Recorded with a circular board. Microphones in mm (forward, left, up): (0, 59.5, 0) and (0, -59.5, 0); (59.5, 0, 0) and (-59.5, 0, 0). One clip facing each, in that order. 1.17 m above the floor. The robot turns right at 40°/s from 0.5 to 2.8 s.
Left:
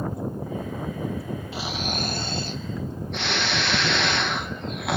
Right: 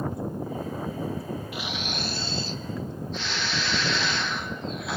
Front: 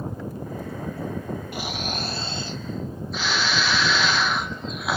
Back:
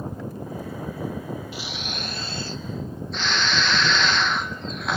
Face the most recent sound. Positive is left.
turn(degrees=80)